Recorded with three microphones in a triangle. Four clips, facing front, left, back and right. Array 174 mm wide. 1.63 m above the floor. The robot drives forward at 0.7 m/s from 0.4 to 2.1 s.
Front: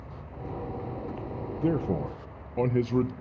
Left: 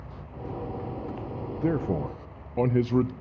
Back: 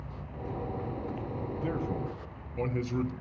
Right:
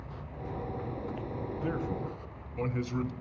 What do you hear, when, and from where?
1.6 s a man speaking: 35° left, 0.7 m; by 3.1 s 60° left, 0.5 m